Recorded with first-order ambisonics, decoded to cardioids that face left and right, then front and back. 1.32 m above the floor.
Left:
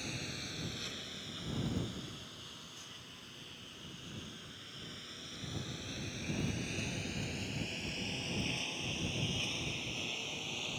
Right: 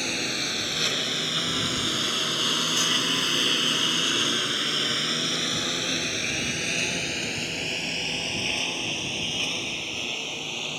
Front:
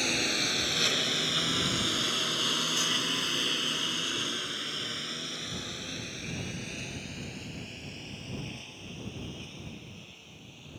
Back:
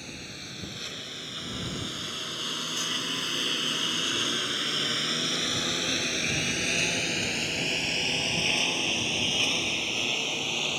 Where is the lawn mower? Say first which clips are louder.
Right 15 dB, front 12 dB; 45° right; by 10.8 s 150° right.